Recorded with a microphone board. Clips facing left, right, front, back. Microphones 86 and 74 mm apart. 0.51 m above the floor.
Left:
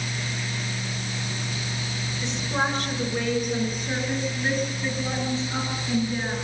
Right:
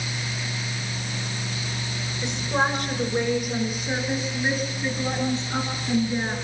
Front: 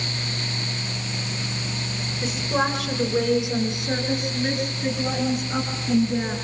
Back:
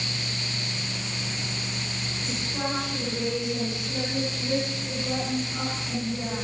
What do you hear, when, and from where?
2.2 s a woman speaking: 10° right, 8.5 m; by 6.3 s 15° right, 11.5 m